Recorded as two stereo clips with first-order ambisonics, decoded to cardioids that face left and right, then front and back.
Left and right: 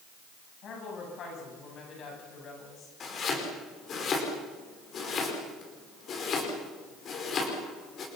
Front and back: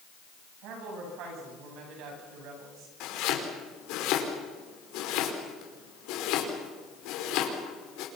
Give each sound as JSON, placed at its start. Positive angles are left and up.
{"t": 0.6, "sound": "a woman speaking", "azimuth_deg": 145, "distance_m": 10.0}
{"t": 3.0, "sound": "chopping", "azimuth_deg": 30, "distance_m": 5.5}